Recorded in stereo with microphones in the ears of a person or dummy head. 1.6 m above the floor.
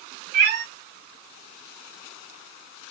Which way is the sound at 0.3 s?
40° right (ahead or behind).